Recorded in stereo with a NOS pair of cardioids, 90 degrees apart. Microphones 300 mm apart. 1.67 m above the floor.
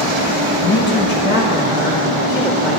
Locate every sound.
0.6 s a man speaking: 45° left, 1.4 m; by 2.8 s 30° left, 4 m